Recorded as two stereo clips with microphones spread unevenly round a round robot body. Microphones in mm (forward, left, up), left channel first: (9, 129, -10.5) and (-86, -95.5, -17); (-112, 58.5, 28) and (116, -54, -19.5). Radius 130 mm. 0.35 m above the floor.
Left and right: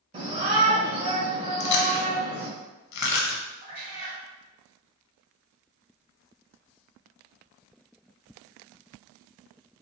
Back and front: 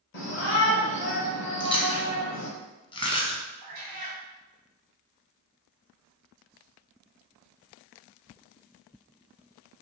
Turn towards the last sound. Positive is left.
turn(degrees=-55)